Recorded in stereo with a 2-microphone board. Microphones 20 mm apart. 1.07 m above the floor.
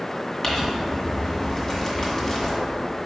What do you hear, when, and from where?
0.4 s crumpling: 25° left (ahead or behind), 1.8 m